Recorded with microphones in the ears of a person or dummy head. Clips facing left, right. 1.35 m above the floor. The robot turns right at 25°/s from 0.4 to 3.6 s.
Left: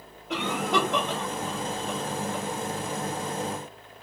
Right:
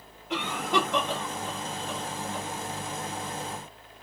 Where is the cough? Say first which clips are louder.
Left 2 dB; 55° left (ahead or behind), 1.0 m; by 2.5 s 70° left (ahead or behind), 1.0 m.